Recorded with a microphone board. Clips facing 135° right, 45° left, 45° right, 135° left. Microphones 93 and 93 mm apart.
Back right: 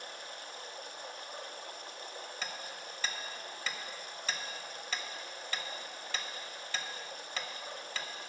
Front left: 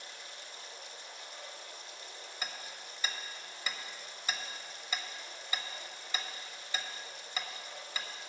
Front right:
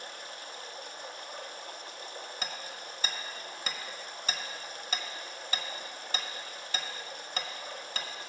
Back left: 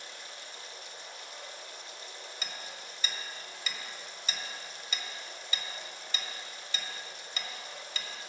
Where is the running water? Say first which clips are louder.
Back right 4 dB, front right 4 dB; 90° right, 0.8 m.